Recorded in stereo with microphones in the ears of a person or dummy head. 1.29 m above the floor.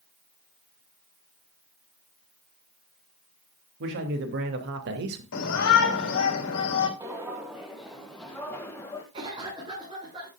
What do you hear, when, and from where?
3.8 s a man speaking: 65° right (ahead or behind), 3 m; by 5.2 s 60° right (ahead or behind), 2.0 m
5.3 s a shout: 65° left (ahead or behind), 3 m
7.0 s footsteps: 15° right (ahead or behind), 1.9 m; by 9.0 s 20° left (ahead or behind), 2 m
9.1 s a cough: 25° right (ahead or behind), 6.5 m